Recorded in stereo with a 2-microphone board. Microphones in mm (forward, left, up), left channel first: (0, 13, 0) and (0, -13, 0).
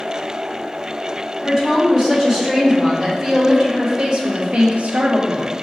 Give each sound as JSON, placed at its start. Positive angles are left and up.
{"t": 1.4, "sound": "a woman speaking", "side_deg": -5, "distance_m": 2.0}